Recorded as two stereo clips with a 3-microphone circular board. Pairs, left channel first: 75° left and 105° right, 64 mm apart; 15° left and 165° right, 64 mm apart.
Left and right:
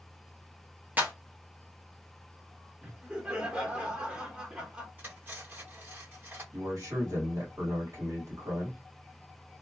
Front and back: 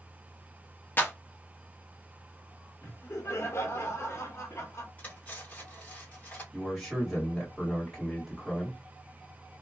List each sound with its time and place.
1.0 s a clap: 40° right, 1.0 m
2.8 s laughter: 30° right, 1.2 m
5.0 s cutlery clinking: 45° right, 1.5 m
6.5 s a man speaking: 70° right, 1.7 m